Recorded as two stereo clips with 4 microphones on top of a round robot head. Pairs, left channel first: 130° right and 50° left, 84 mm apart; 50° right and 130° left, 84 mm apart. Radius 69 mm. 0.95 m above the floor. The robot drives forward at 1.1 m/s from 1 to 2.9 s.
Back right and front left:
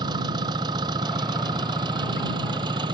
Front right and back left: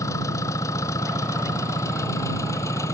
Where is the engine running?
10° left.